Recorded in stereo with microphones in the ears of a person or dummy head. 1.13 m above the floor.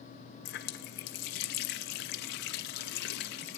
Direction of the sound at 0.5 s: 50° left (ahead or behind).